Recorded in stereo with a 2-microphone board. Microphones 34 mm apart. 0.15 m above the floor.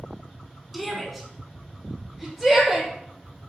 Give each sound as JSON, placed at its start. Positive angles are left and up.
{"t": 0.7, "sound": "a shout", "side_deg": 0, "distance_m": 1.3}